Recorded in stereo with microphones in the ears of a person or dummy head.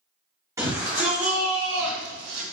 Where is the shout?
15° right (ahead or behind), 1.3 m; by 2.4 s 55° right (ahead or behind), 1.3 m.